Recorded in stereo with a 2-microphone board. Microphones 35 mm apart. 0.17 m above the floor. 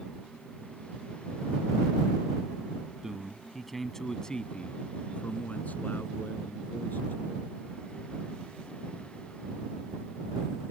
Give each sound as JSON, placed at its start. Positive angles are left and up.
{"t": 3.0, "sound": "a man speaking", "side_deg": -15}